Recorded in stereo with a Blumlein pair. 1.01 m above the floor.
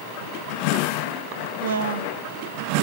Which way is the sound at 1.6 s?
65° right.